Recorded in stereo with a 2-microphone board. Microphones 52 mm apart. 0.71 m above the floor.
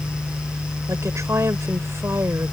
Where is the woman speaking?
75° right (ahead or behind); by 2.5 s 60° right (ahead or behind).